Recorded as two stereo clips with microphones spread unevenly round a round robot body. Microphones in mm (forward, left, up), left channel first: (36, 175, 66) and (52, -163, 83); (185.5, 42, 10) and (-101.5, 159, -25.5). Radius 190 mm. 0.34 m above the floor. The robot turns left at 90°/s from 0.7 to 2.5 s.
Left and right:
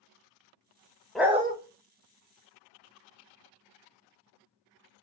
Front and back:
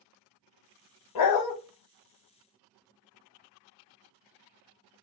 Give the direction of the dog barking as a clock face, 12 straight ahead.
12 o'clock.